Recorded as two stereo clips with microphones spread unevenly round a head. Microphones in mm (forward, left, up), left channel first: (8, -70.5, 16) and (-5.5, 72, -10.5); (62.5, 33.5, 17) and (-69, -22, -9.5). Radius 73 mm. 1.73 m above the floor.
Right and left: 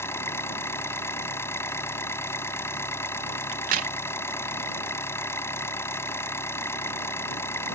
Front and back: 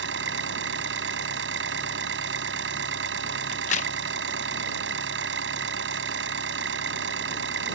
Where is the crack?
60° left.